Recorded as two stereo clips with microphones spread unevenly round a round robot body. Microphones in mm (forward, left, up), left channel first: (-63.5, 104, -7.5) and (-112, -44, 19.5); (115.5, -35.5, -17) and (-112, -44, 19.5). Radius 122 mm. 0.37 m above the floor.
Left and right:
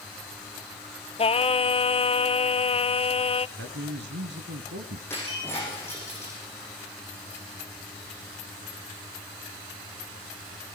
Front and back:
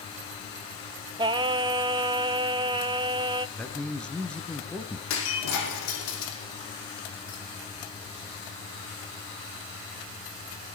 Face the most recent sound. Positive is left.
turn(degrees=-10)